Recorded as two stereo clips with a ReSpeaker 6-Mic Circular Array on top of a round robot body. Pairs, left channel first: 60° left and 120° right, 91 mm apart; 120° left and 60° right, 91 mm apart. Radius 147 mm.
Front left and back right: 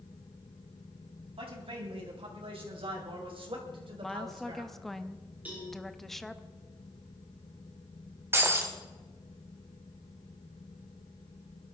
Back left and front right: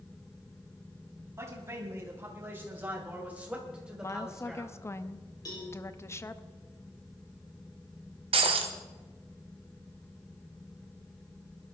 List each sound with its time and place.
1.4 s a man speaking: 120° right, 4 m; by 4.8 s 150° right, 2.5 m
4.0 s a woman speaking: 145° left, 0.9 m
5.5 s a cowbell: 165° left, 6 m
8.3 s breaking glass: 55° right, 1.3 m